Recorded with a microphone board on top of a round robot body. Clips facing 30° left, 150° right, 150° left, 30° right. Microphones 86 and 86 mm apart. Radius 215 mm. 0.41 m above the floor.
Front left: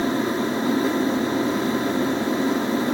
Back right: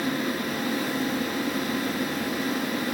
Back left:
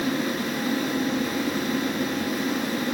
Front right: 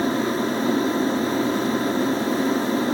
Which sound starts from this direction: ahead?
An aircraft, at 0.0 s.